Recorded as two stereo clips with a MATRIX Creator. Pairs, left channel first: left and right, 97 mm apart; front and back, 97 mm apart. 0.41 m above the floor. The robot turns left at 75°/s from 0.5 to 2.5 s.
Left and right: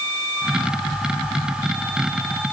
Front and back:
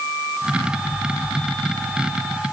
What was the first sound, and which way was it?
Only background noise.